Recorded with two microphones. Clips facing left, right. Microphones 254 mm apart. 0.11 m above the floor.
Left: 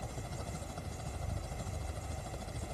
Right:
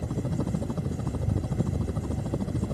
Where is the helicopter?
70° right (ahead or behind).